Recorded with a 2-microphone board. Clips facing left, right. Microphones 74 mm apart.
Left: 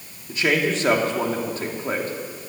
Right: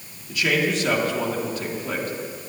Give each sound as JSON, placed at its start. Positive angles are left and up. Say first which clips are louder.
{"t": 0.3, "sound": "a man speaking", "louder": "left 1 dB", "side_deg": 35, "distance_m": 2.0}